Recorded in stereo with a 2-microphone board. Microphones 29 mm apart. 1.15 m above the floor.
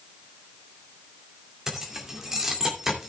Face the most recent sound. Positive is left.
turn(degrees=-15)  # may be behind; listen again after turning